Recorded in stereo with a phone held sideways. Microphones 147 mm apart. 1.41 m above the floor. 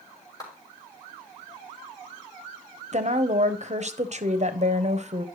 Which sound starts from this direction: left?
A clap, at 0.4 s.